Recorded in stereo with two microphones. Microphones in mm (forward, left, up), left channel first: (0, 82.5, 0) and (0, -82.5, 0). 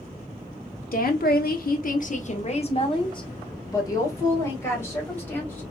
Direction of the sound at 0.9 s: 65° left (ahead or behind).